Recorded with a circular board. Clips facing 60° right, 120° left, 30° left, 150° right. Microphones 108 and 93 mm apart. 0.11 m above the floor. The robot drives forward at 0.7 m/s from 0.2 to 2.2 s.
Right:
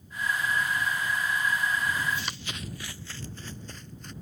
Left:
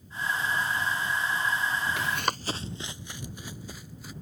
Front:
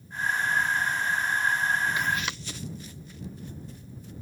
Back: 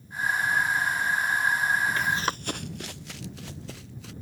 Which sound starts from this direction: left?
Running footsteps, at 2.0 s.